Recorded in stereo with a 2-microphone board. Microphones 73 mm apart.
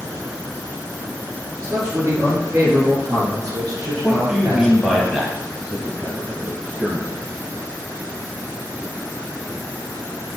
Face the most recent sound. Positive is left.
turn(degrees=-5)  # may be behind; listen again after turning